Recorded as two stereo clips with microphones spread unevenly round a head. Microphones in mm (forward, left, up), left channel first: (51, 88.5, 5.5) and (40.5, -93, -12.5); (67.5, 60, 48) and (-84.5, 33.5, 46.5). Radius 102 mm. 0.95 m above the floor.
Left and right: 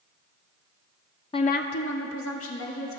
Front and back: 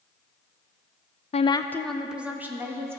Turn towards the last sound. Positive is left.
turn(degrees=115)